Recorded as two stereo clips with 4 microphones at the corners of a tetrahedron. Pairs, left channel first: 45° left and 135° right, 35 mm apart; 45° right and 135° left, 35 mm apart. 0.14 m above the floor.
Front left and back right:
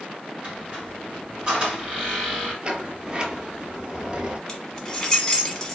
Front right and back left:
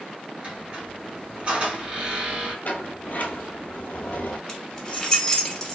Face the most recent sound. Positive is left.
turn(degrees=0)